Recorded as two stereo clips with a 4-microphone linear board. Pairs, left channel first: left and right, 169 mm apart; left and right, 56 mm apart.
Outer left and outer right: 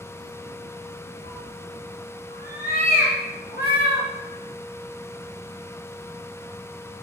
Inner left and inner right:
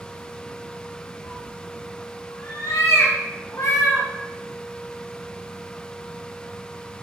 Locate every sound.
1.2 s a cat meowing: 50° left (ahead or behind), 2 m; by 4.1 s 75° left (ahead or behind), 2.5 m